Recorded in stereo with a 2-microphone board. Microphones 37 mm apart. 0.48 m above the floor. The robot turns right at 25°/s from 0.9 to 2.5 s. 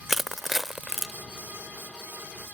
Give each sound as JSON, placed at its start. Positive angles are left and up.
{"t": 0.1, "sound": "crushing", "side_deg": -10}